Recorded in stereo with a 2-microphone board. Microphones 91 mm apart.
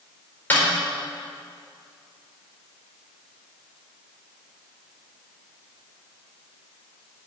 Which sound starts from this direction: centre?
A snare drum, at 0.5 s.